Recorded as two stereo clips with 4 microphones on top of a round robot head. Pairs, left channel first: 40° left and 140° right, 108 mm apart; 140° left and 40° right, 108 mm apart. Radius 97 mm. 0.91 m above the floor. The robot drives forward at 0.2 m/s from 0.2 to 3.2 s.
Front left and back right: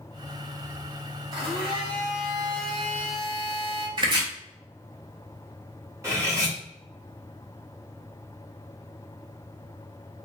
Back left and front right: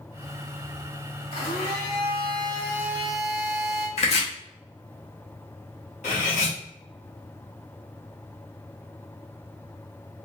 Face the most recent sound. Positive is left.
turn(degrees=155)